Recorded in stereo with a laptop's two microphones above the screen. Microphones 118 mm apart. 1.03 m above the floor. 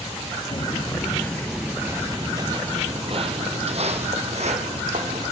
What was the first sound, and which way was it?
Footsteps, 45° left (ahead or behind).